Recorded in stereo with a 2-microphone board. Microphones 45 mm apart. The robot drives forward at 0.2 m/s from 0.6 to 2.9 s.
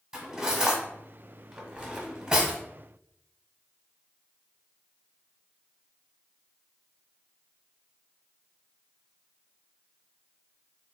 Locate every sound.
0.1 s cutlery clinking: 15° right (ahead or behind), 1.3 m; by 2.6 s 20° right (ahead or behind), 1.0 m